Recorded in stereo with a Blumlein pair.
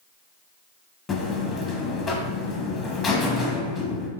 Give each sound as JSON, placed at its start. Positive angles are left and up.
{"t": 1.1, "sound": "a buzzer", "azimuth_deg": 25, "distance_m": 0.8}